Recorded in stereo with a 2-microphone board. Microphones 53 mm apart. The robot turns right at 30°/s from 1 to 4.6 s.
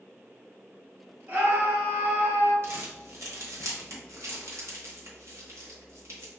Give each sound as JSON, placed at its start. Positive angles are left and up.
{"t": 1.3, "sound": "a scream", "azimuth_deg": -140, "distance_m": 1.7}
{"t": 2.6, "sound": "crumpling", "side_deg": -50, "distance_m": 1.0}